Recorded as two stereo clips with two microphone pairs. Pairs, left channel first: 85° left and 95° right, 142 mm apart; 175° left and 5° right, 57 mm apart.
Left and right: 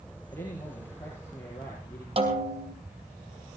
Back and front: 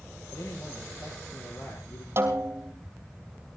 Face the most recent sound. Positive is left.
turn(degrees=-50)